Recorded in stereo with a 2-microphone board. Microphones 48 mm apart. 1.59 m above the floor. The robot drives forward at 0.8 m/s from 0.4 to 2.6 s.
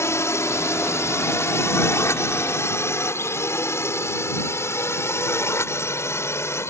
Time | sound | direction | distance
0.0 | a drone | 75° left (ahead or behind) | ?